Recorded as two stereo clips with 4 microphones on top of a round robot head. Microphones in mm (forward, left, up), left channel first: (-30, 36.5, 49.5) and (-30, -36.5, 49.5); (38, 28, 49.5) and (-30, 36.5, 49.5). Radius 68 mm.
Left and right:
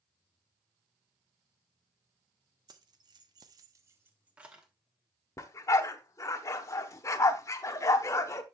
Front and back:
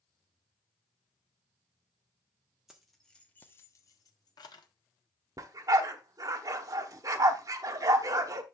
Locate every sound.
2.7 s keys jangling: 100° right, 1.2 m; by 4.7 s 5° right, 1.3 m
5.4 s a dog barking: 140° left, 1.0 m